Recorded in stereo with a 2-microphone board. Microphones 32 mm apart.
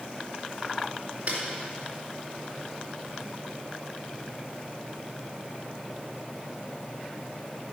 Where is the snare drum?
45° right (ahead or behind), 4 m.